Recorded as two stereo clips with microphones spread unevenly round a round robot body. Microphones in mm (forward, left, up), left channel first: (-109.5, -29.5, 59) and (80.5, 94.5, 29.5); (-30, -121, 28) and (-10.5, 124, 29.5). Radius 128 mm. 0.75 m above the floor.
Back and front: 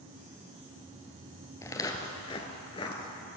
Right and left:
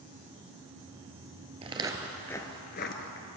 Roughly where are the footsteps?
Behind left.